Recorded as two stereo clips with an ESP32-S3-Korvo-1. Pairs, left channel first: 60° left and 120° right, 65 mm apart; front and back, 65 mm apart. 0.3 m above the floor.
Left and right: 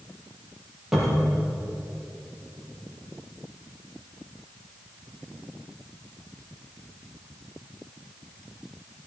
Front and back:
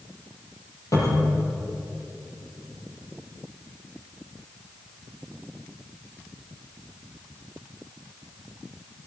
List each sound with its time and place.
0.9 s a cupboard door: 35° right, 5.5 m